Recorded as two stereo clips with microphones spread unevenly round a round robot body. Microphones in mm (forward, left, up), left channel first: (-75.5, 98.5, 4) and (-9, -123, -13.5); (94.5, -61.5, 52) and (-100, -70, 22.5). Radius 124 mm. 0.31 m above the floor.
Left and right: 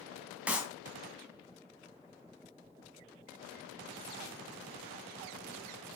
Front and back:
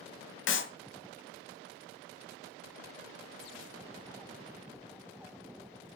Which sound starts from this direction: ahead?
A clap, at 0.5 s.